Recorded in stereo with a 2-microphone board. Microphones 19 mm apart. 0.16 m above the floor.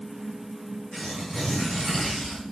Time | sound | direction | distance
0.9 | tearing paper | 45° left (ahead or behind) | 2.5 m